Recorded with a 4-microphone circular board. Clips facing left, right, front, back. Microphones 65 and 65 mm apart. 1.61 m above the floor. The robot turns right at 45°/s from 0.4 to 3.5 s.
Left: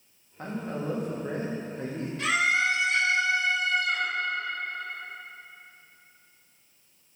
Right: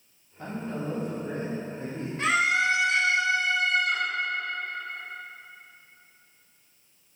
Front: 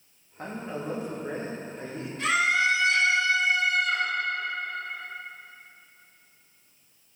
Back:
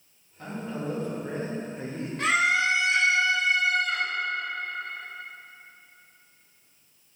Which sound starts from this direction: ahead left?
A man speaking, at 0.4 s.